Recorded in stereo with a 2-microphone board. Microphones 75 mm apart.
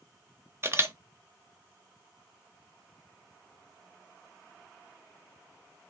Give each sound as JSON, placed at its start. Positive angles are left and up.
{"t": 0.6, "sound": "a camera shutter", "side_deg": -35, "distance_m": 0.6}